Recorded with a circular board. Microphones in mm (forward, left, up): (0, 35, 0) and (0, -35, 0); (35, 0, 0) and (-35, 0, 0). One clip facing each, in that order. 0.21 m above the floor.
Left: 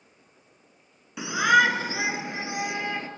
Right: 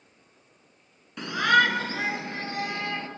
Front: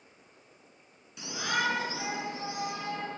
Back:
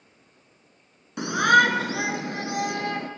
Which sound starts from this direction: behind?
A shout, at 1.2 s.